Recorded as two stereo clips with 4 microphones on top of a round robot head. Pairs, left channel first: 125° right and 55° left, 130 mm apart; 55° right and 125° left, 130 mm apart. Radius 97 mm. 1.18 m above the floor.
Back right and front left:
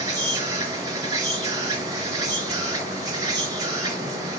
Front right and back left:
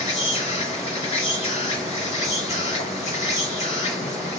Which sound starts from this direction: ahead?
An insect, at 0.0 s.